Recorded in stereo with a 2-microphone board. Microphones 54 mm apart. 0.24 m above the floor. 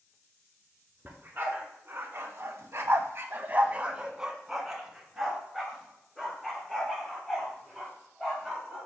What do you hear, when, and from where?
1.1 s a dog barking: 40° right (ahead or behind), 1.3 m; by 8.9 s 10° left (ahead or behind), 3.5 m